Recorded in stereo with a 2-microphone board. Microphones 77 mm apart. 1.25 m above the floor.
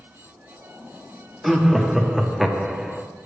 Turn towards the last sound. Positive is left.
turn(degrees=-5)  # may be behind; listen again after turning